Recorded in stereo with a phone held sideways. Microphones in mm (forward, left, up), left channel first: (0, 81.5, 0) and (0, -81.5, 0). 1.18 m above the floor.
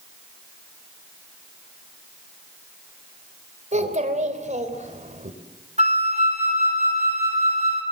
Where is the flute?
40° right (ahead or behind), 3 m.